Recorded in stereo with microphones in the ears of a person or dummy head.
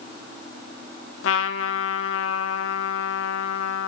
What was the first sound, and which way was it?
A trumpet, 70° left (ahead or behind).